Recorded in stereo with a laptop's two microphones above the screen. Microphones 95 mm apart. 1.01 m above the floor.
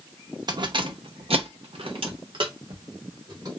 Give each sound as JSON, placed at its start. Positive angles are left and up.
{"t": 0.5, "sound": "keys jangling", "side_deg": -45, "distance_m": 0.9}